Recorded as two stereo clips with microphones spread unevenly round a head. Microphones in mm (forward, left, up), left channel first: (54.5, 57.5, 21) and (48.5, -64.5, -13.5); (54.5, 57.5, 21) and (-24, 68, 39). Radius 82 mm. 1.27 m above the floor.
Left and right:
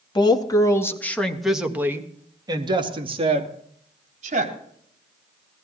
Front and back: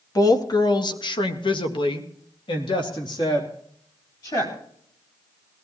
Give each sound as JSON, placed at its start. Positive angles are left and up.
{"t": 0.1, "sound": "a woman speaking", "azimuth_deg": 30, "distance_m": 2.5}